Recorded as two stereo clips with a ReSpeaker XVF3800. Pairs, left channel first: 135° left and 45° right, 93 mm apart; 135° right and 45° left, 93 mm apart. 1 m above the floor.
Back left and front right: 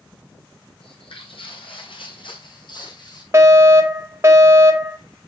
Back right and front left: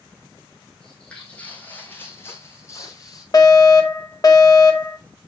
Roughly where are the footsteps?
Behind left.